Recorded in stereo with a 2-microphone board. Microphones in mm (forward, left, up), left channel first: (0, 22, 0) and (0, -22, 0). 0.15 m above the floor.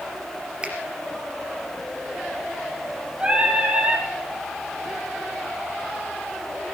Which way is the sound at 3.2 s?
20° right (ahead or behind).